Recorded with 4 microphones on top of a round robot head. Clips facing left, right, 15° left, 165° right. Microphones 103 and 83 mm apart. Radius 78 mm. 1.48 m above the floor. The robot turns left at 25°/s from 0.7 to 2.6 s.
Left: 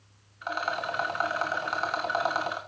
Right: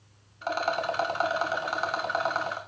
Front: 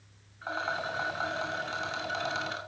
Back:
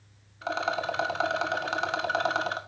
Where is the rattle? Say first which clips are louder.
Right 3 dB, back 4 dB; 145° right, 1.1 m; by 2.6 s 165° left, 1.1 m.